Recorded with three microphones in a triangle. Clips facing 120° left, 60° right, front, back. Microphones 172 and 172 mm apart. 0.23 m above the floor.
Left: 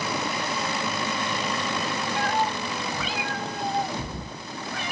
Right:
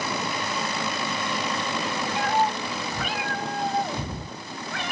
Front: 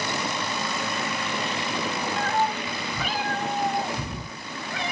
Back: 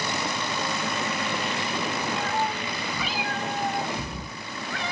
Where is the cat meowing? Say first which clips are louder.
Right 3 dB, front 2 dB; 10° left, 0.8 m; by 4.9 s 75° right, 1.4 m.